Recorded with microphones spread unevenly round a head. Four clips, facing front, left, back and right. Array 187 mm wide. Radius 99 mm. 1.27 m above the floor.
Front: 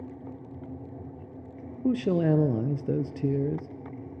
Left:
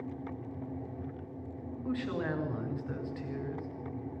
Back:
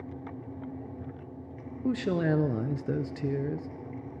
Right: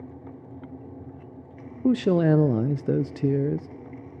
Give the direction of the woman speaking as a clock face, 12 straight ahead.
2 o'clock.